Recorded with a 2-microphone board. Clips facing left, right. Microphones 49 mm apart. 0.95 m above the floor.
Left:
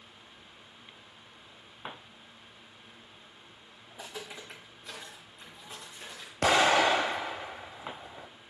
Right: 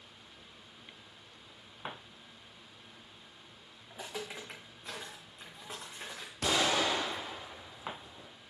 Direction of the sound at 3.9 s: 30° right (ahead or behind).